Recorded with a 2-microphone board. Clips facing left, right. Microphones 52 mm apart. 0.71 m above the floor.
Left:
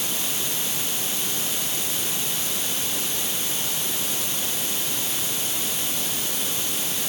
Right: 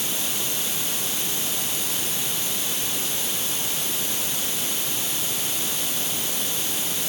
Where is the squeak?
No squeak in this recording.